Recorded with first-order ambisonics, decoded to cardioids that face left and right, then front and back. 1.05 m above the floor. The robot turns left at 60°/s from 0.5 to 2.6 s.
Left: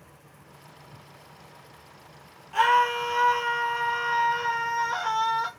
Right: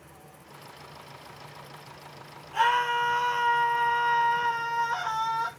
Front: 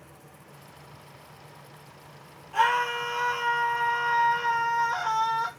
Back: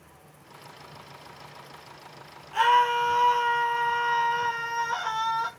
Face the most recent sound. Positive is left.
turn(degrees=120)